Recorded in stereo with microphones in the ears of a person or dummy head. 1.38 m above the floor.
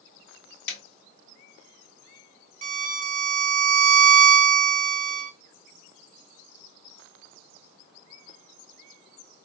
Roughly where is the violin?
Right.